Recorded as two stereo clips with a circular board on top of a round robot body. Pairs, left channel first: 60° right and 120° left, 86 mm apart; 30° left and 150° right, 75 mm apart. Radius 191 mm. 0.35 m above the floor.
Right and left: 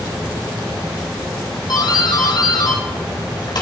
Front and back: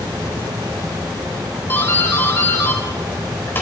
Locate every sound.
1.7 s a doorbell: 30° right, 4 m